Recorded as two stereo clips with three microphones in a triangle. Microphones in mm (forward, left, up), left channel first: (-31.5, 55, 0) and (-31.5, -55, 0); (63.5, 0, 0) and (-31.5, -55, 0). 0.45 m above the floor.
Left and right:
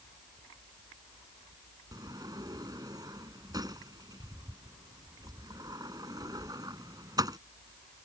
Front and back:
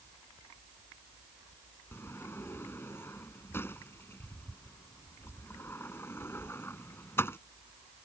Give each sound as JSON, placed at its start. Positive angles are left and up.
{"t": 1.9, "sound": "a sliding door", "azimuth_deg": -40}